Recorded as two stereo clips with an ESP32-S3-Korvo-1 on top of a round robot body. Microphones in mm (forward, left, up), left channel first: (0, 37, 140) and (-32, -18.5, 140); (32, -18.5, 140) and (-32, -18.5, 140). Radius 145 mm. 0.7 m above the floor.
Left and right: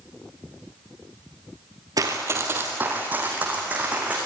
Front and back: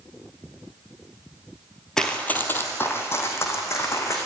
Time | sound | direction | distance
2.0 | running footsteps | 85° right | 1.0 m